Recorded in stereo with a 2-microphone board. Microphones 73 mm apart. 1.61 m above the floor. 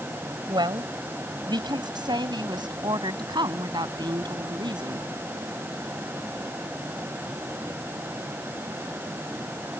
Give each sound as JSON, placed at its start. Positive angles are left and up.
{"t": 0.5, "sound": "a woman speaking", "side_deg": -80}